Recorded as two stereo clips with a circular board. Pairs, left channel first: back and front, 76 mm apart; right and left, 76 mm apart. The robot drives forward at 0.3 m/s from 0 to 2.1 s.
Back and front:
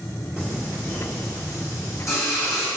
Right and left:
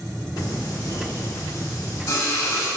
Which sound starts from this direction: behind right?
Singing, at 0.4 s.